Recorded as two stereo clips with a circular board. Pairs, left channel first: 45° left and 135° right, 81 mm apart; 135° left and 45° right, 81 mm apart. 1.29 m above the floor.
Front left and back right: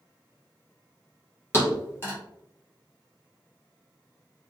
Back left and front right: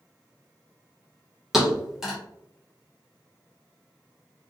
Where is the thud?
35° left, 1.0 m.